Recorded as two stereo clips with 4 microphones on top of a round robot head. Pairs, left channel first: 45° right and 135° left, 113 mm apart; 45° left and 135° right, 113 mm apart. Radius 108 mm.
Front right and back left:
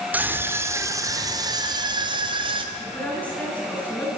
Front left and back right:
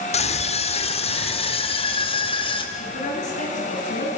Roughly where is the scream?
Ahead left.